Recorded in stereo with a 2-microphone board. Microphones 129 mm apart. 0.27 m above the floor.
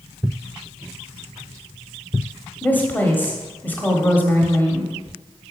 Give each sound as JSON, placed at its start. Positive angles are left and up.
{"t": 2.6, "sound": "a woman speaking", "side_deg": 15, "distance_m": 1.1}